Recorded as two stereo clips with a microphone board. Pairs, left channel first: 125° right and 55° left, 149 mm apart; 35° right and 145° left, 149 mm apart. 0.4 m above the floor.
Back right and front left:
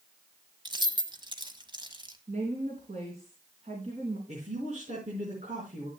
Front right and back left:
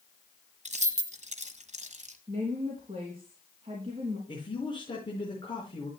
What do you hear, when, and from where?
0.7 s keys jangling: 110° left, 1.4 m
2.3 s a woman speaking: 95° left, 3 m
4.3 s a man speaking: 20° left, 5 m